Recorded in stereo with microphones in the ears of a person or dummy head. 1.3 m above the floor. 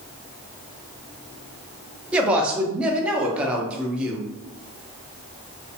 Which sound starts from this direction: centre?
A woman speaking, at 2.1 s.